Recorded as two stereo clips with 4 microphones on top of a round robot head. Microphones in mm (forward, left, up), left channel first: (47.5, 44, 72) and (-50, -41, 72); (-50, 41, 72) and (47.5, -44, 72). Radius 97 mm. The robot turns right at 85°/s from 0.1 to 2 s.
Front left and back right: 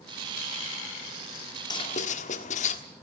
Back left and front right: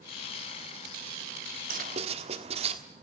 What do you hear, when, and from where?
1.7 s writing: 20° right, 1.5 m; by 2.8 s 5° left, 1.5 m